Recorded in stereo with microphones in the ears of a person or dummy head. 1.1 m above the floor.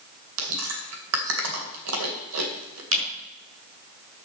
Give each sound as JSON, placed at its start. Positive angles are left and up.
{"t": 0.4, "sound": "chewing", "side_deg": -80, "distance_m": 2.5}
{"t": 2.9, "sound": "a camera shutter", "side_deg": -70, "distance_m": 5.5}